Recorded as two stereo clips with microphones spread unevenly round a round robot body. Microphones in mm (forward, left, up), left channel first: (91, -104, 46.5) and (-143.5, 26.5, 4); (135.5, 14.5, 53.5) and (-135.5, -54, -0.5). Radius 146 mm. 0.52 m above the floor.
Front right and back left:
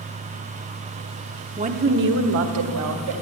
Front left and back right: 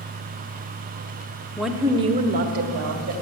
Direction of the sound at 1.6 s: 110° left.